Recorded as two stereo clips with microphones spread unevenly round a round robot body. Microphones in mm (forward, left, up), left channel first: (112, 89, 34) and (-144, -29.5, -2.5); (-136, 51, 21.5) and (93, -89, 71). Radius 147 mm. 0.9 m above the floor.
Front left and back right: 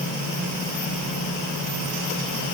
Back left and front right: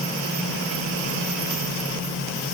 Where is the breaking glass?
No breaking glass in this recording.